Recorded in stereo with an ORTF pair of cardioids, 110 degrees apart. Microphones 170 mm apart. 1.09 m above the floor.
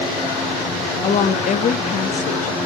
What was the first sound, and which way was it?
A woman speaking, 45° left.